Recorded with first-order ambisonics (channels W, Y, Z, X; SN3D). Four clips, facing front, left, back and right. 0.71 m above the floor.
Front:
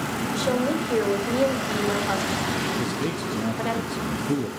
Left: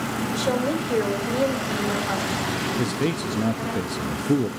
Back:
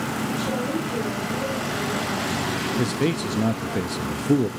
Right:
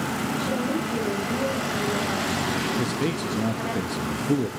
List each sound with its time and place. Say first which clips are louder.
0.3 s a woman speaking: left 5 dB, front 5 dB; 55° left, 4 m; by 3.8 s 5° right, 3 m
2.8 s a man speaking: left 1 dB, back 3 dB; 160° left, 0.6 m